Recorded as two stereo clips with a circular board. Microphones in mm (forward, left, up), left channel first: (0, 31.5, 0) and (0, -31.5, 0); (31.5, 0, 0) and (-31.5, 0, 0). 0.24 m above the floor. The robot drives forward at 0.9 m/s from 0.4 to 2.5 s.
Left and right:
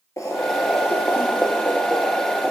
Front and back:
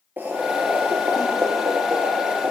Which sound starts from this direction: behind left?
Boiling, at 0.2 s.